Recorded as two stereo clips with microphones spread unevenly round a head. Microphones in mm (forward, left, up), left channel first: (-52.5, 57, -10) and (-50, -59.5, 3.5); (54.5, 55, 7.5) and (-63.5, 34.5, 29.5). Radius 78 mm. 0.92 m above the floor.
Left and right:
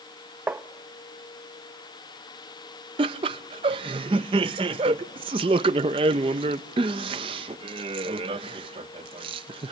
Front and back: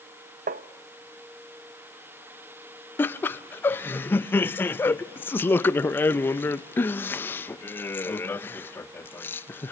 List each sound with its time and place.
0.5 s tapping: 165° right, 0.6 m
3.0 s laughter: 45° right, 0.5 m